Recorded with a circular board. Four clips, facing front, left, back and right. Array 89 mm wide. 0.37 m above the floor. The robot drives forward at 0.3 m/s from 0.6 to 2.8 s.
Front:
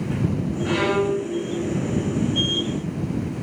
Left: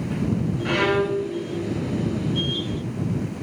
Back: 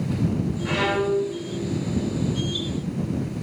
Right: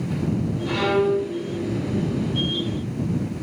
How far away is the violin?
About 2.5 m.